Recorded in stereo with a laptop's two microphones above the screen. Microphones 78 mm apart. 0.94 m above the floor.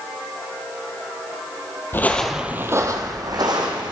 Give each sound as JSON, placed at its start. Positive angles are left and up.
{"t": 1.9, "sound": "footsteps", "side_deg": 30, "distance_m": 1.0}